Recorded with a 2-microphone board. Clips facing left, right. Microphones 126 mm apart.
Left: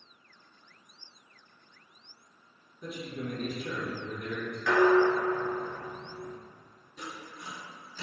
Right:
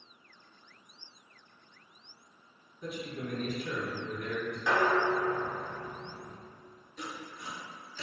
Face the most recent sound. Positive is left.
turn(degrees=5)  # may be behind; listen again after turning